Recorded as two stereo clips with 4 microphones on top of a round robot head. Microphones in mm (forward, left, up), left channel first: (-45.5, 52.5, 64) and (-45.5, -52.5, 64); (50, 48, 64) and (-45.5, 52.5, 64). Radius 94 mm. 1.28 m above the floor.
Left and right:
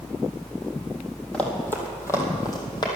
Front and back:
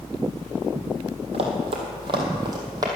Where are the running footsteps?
170° left, 2 m; by 2.9 s 135° left, 2.5 m.